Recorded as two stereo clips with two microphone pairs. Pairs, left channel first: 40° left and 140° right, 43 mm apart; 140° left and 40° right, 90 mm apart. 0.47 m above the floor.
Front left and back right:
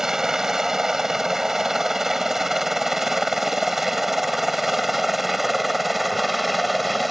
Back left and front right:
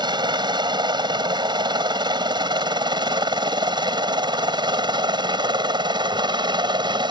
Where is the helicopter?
60° right; by 7.1 s 50° right.